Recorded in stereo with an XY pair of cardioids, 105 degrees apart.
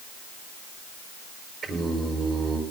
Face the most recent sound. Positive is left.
turn(degrees=-50)